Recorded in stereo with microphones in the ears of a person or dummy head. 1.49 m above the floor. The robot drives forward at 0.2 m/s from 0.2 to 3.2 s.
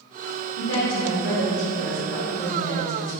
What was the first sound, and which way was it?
A woman speaking, 75° left (ahead or behind).